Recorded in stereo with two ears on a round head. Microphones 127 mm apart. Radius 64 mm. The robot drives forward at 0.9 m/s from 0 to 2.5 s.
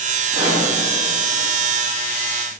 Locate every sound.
0.3 s a pop: 35° right (ahead or behind), 3 m; by 0.7 s 30° right (ahead or behind), 3 m